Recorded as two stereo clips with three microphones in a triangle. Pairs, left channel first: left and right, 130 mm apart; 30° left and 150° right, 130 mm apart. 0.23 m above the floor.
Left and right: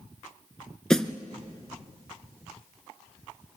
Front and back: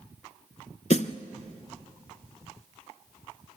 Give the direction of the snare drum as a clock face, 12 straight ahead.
12 o'clock.